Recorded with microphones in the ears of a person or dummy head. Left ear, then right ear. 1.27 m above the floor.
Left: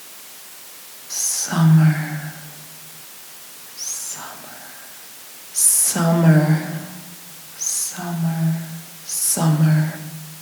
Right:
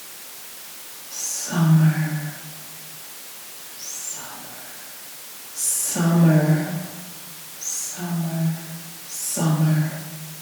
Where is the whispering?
80° left, 0.6 m.